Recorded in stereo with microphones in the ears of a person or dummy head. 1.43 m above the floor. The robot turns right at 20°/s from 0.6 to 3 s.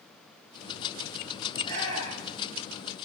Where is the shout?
25° left (ahead or behind), 9 m; by 2.5 s 5° left (ahead or behind), 9 m.